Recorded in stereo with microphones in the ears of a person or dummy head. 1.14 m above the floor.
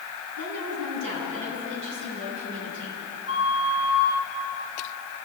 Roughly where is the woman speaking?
Right.